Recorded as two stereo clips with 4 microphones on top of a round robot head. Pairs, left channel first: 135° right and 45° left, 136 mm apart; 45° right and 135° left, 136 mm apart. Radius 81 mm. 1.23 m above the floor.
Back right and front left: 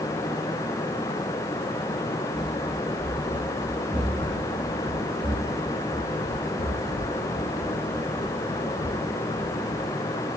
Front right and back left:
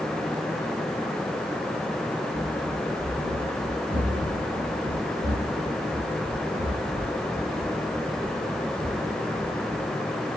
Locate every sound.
2.3 s running footsteps: 130° left, 5 m; by 9.9 s 60° left, 5 m